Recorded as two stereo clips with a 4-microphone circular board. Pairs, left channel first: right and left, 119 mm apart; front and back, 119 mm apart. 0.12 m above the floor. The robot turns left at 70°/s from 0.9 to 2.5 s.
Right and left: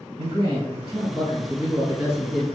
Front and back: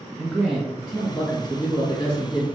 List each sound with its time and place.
0.2 s a man speaking: 95° left, 2.0 m; by 2.5 s 15° right, 2.0 m